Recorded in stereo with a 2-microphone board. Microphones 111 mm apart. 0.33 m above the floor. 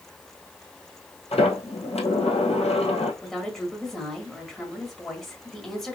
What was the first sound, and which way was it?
A sliding door, 70° left (ahead or behind).